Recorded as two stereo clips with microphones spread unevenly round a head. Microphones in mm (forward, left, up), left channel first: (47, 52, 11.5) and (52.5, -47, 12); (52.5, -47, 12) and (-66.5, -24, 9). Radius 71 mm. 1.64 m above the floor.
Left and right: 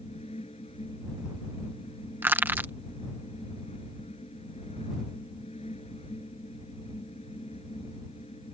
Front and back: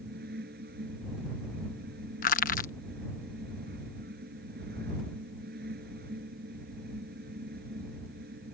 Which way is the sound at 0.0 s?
150° left.